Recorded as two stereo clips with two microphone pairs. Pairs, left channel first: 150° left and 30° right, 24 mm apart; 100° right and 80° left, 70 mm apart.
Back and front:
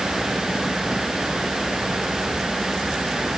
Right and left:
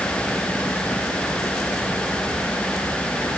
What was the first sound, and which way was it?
Only background noise.